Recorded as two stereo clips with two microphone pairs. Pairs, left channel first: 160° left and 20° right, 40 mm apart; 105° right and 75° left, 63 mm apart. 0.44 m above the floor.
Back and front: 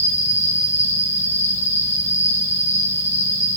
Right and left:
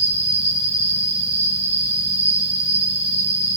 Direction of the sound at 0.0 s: Straight ahead.